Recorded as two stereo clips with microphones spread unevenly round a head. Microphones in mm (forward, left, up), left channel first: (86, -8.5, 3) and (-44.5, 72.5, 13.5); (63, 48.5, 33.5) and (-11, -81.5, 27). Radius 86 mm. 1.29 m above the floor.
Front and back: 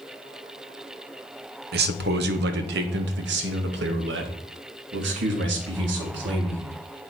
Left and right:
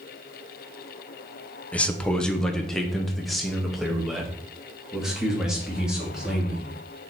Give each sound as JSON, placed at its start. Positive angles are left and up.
{"t": 1.7, "sound": "a man speaking", "azimuth_deg": 145, "distance_m": 1.0}